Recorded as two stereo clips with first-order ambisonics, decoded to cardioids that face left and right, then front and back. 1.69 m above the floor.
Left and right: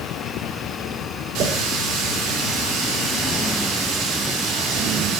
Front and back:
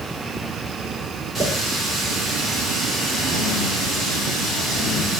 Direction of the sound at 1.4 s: 85° right.